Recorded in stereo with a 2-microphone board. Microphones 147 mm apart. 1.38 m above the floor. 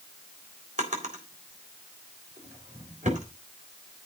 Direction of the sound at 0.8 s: 60° right (ahead or behind).